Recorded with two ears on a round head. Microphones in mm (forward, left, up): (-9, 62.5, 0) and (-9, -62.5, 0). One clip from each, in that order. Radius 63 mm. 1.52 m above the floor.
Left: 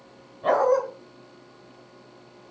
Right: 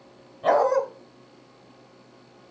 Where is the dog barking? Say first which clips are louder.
Even; 40° right (ahead or behind), 2.5 m.